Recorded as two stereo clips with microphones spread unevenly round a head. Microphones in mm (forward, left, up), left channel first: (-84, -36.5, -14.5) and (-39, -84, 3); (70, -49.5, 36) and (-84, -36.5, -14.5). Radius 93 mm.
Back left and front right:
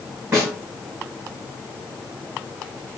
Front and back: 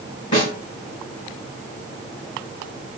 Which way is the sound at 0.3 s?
10° left.